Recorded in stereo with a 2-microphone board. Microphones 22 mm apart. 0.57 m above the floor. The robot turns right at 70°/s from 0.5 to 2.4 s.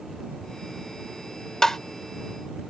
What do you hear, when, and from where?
1.6 s tapping: 30° left (ahead or behind); by 1.8 s 20° left (ahead or behind)